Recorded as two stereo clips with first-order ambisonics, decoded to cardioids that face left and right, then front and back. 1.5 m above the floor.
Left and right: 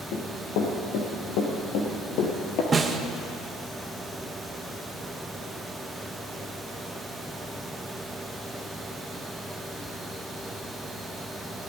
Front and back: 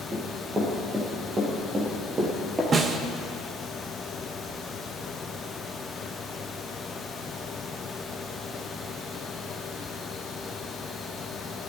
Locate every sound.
0.1 s running footsteps: 105° left, 3.5 m; by 2.6 s 110° left, 2.5 m
2.7 s a snare drum: 140° right, 0.7 m